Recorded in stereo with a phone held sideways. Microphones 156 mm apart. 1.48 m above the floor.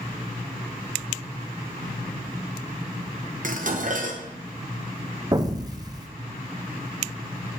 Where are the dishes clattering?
55° right (ahead or behind), 0.7 m.